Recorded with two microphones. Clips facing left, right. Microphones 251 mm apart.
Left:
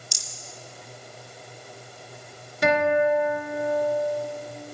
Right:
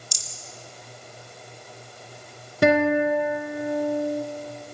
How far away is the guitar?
About 1.6 m.